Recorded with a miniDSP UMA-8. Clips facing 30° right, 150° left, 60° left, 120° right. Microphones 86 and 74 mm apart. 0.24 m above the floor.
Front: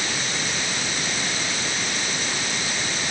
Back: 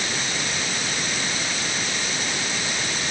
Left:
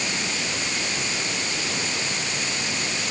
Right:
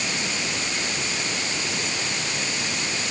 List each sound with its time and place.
Only background noise.